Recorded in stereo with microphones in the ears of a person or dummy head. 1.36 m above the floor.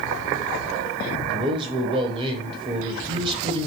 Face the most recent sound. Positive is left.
turn(degrees=-30)  # may be behind; listen again after turning